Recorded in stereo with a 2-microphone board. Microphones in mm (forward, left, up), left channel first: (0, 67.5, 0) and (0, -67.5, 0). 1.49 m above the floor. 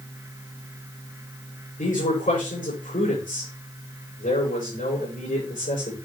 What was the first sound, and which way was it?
A man speaking, 80° left.